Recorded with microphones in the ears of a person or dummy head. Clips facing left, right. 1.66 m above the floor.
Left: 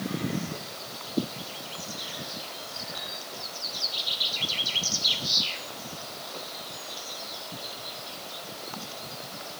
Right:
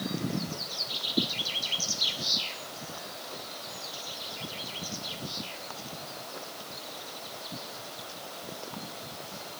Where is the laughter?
I don't hear laughter.